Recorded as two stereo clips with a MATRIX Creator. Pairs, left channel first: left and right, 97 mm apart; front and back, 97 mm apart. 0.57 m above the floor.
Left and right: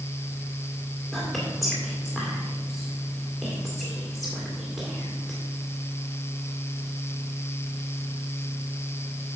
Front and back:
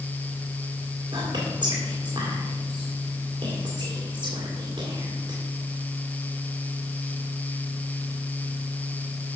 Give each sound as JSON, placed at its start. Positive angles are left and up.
{"t": 1.1, "sound": "whispering", "azimuth_deg": 175, "distance_m": 1.8}